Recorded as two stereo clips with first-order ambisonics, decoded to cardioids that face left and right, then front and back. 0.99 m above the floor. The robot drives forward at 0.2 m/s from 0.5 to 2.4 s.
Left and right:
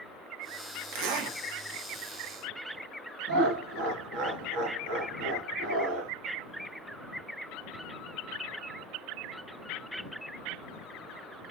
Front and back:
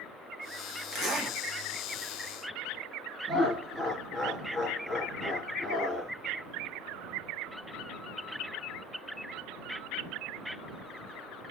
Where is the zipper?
110° right, 0.8 m; by 1.4 s 115° right, 0.8 m.